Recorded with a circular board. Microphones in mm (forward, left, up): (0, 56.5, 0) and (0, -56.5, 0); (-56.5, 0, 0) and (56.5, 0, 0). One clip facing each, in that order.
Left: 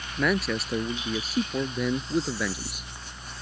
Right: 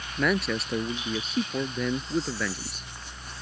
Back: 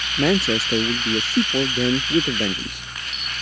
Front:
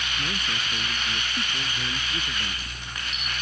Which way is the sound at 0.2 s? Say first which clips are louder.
Even, back 17 dB; straight behind.